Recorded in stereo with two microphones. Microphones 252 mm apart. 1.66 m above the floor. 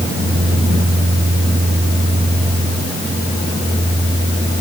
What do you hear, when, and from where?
Only background noise.